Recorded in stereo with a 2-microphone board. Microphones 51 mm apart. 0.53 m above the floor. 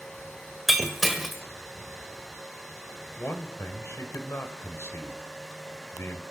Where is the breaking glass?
5° right (ahead or behind), 1.5 m.